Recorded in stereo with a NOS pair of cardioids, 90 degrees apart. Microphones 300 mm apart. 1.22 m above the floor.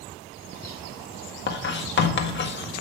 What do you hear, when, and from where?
1.5 s writing: 35° left, 1.6 m